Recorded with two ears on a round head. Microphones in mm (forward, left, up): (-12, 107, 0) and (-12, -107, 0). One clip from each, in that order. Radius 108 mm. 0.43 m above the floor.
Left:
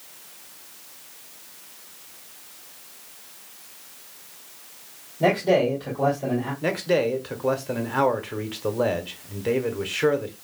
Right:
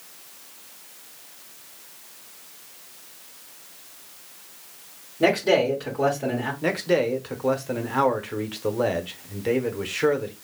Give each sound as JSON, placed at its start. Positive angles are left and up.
{"t": 5.2, "sound": "a man speaking", "side_deg": -50, "distance_m": 2.0}
{"t": 6.6, "sound": "a man speaking", "side_deg": 0, "distance_m": 0.8}